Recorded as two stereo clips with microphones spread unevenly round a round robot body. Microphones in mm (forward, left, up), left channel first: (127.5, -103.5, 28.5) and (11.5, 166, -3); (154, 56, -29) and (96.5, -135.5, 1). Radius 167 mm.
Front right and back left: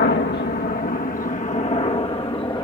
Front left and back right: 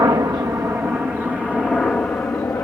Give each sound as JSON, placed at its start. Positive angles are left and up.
{"t": 0.0, "sound": "a helicopter", "azimuth_deg": -50}